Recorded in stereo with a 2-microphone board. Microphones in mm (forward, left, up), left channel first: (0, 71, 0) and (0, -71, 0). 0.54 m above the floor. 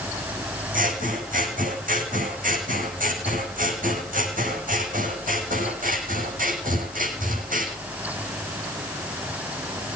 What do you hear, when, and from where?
0.7 s scissors: 80° right, 5 m